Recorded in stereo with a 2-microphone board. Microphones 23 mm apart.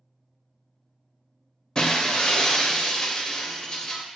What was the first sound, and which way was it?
Breaking glass, 30° left (ahead or behind).